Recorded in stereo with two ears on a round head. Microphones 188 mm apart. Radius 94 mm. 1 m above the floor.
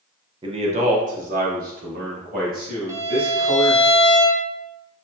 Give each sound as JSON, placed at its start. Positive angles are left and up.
{"t": 0.4, "sound": "a man speaking", "side_deg": -25, "distance_m": 0.6}
{"t": 2.9, "sound": "a violin", "side_deg": -15, "distance_m": 0.6}